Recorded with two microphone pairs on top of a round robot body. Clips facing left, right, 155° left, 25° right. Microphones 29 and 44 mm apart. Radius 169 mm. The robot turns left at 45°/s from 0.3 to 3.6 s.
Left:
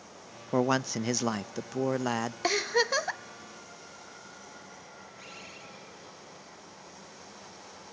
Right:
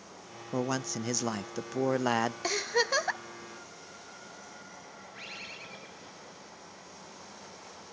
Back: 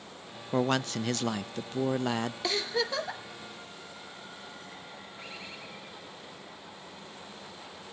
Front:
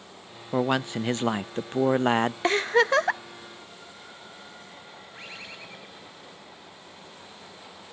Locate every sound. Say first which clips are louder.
0.5 s a man speaking: left 5 dB, front 3 dB; 55° left, 0.5 m; by 2.3 s 30° right, 0.5 m
2.4 s a giggle: left 2 dB, front 10 dB; 20° left, 1.0 m; by 3.2 s 15° right, 1.0 m
5.1 s a bird: right 5 dB, front 4 dB; 45° right, 6.5 m